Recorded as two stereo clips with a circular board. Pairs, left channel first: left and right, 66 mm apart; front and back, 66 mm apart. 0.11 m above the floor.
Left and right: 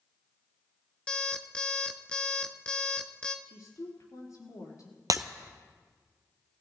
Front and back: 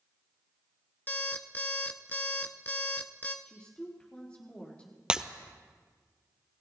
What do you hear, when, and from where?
1.1 s an alarm clock: 30° left, 0.9 m
3.5 s a woman speaking: 70° left, 4.5 m
5.1 s breaking glass: 105° right, 0.8 m